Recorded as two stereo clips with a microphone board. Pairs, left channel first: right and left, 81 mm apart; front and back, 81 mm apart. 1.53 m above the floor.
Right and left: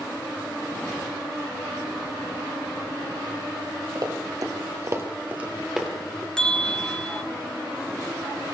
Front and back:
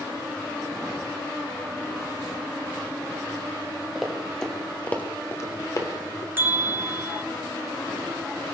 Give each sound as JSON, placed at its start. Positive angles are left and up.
{"t": 4.0, "sound": "running footsteps", "azimuth_deg": 95, "distance_m": 2.5}
{"t": 6.4, "sound": "a bell", "azimuth_deg": -160, "distance_m": 1.1}